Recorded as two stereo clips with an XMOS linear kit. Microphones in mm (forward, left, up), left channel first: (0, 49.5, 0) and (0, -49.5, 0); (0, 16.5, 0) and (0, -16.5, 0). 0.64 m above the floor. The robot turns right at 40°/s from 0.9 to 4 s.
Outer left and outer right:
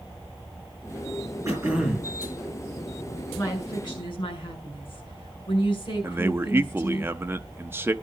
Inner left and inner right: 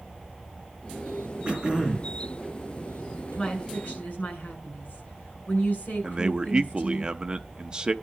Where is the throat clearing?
30° right (ahead or behind), 5.5 m; by 2.2 s 5° right (ahead or behind), 5.5 m.